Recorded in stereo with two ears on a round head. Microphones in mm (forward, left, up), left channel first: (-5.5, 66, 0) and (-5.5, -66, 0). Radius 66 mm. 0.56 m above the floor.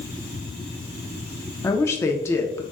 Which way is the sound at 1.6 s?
20° left (ahead or behind).